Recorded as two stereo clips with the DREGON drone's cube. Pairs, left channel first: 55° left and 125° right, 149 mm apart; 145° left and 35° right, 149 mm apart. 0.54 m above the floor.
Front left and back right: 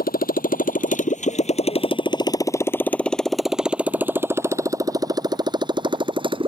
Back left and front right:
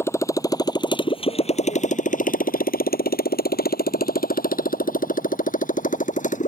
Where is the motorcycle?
70° left; by 6.5 s straight behind.